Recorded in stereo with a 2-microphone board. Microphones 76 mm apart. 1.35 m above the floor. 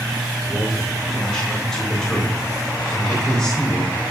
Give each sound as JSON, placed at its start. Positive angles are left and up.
{"t": 0.5, "sound": "a man speaking", "side_deg": 10, "distance_m": 3.5}